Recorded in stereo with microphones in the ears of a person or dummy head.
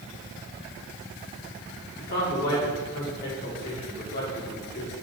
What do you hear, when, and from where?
2.0 s a man speaking: 50° left (ahead or behind), 5 m